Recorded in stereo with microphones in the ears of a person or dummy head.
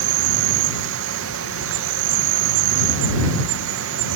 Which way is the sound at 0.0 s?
80° right.